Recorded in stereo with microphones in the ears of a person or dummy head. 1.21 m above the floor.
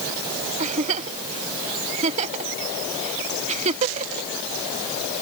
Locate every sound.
0.6 s a giggle: 45° right (ahead or behind)